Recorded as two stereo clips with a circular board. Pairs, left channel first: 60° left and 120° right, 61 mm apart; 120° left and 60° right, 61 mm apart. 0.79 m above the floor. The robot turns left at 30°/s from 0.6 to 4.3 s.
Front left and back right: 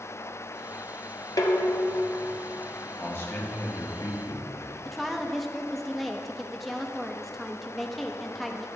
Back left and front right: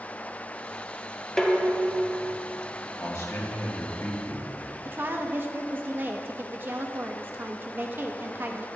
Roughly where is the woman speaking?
Ahead right.